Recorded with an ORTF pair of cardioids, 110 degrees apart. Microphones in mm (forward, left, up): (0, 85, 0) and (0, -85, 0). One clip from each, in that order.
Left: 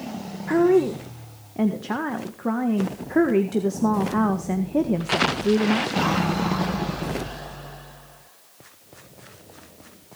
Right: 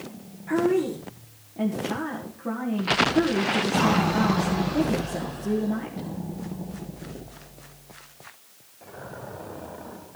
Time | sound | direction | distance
0.5 | a woman speaking | 45° left | 1.7 m